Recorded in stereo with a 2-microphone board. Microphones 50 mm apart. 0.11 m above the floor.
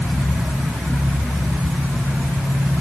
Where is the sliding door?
I don't hear a sliding door.